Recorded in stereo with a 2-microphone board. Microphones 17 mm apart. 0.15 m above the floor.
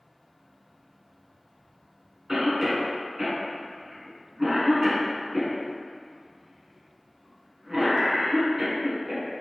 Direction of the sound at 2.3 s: 20° right (ahead or behind).